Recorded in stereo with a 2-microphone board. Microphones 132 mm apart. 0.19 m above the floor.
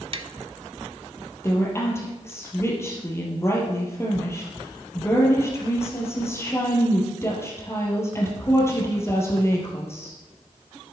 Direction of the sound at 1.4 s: 20° left (ahead or behind).